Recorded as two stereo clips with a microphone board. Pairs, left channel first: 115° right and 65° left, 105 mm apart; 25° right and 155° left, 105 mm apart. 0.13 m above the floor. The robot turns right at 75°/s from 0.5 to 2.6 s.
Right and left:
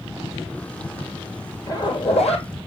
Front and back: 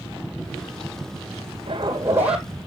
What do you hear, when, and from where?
1.7 s a zipper: 170° right, 2.0 m; by 2.5 s 105° right, 2.0 m